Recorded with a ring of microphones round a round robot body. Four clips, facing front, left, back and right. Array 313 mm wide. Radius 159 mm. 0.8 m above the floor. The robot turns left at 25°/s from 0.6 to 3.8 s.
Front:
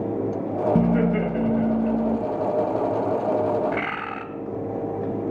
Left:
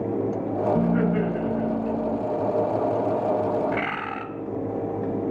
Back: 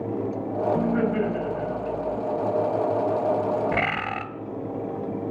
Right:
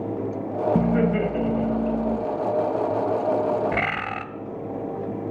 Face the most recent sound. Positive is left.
turn(degrees=-135)